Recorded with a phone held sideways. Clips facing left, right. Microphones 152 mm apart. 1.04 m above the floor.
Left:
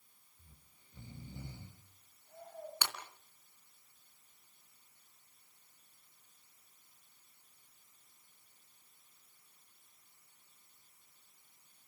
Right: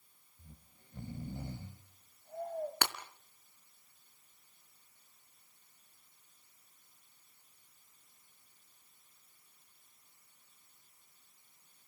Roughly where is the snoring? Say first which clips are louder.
Right 9 dB; right.